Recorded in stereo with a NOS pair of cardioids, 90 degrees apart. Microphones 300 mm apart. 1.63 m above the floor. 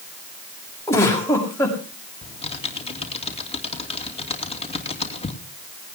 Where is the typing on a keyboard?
20° left, 2.5 m.